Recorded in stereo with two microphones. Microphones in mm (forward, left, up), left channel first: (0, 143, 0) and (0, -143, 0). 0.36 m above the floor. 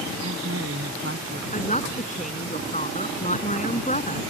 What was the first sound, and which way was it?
A man speaking, 60° right (ahead or behind).